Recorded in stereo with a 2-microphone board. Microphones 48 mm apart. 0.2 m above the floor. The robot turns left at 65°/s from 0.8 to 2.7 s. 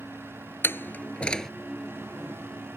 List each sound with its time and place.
0.6 s a door slam: 50° left (ahead or behind); by 1.5 s 5° left (ahead or behind)